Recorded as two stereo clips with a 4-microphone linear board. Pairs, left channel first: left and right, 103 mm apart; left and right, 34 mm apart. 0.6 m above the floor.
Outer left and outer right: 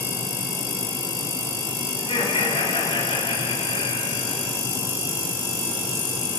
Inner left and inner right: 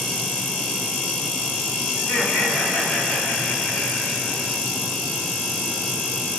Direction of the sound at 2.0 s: 80° left.